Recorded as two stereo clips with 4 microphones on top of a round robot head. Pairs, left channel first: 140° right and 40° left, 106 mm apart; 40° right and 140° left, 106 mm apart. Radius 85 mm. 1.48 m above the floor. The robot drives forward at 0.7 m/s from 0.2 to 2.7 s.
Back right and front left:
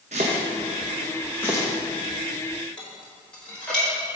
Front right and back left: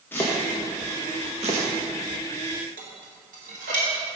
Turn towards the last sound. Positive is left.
turn(degrees=140)